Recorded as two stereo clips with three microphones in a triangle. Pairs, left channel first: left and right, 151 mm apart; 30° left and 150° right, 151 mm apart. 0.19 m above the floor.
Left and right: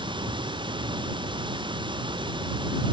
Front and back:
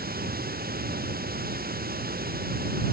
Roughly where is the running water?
Behind right.